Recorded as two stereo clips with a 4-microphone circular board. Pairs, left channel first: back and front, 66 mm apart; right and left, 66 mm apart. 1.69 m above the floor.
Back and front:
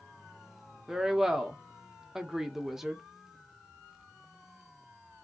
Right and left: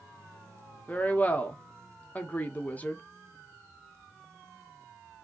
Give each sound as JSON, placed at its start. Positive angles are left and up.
{"t": 0.9, "sound": "a woman speaking", "azimuth_deg": -75, "distance_m": 0.6}